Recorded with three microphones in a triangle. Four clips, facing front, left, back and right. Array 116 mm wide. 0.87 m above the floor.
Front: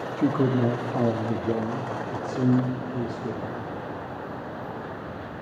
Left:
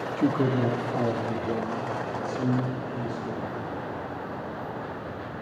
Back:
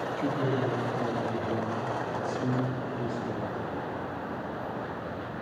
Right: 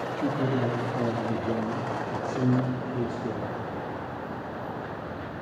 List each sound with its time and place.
0.2 s a man speaking: 35° left, 1.2 m; by 3.6 s 45° right, 2 m